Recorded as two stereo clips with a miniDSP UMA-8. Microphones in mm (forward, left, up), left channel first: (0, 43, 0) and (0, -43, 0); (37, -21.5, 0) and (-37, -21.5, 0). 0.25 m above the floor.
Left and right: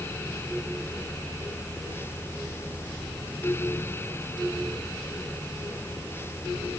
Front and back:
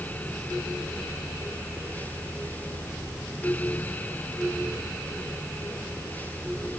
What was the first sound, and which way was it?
Only background noise.